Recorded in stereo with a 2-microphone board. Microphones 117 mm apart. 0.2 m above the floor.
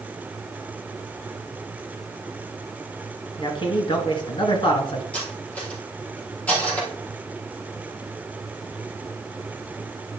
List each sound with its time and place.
3.4 s a man speaking: 45° left (ahead or behind), 2.5 m
5.1 s cutlery clinking: 10° left (ahead or behind), 4 m